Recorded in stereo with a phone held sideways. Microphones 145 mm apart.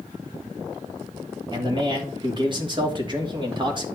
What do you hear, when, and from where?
1.5 s a man speaking: 35° right (ahead or behind), 3 m